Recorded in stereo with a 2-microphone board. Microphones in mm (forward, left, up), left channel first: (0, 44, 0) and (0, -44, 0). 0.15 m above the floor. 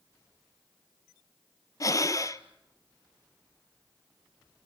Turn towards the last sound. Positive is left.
turn(degrees=40)  # may be behind; listen again after turning